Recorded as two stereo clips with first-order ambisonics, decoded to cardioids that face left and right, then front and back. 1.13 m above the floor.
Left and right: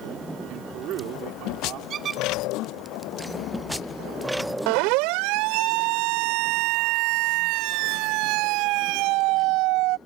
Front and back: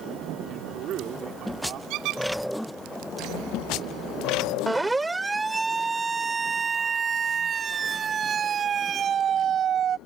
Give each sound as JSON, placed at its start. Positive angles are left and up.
{"t": 0.5, "sound": "a man speaking", "azimuth_deg": -135}
{"t": 1.9, "sound": "a squeak", "azimuth_deg": -150}
{"t": 4.7, "sound": "a siren", "azimuth_deg": -95}